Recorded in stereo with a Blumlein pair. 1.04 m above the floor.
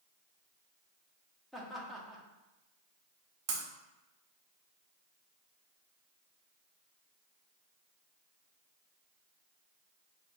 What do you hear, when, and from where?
1.5 s laughter: straight ahead, 1.0 m
3.5 s breaking glass: 40° right, 1.0 m